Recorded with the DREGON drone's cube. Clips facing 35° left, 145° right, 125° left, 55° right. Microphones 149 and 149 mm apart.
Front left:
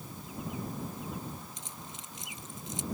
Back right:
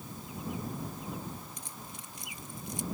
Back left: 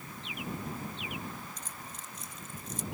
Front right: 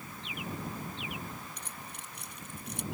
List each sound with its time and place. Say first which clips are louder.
1.6 s keys jangling: even, even; 35° right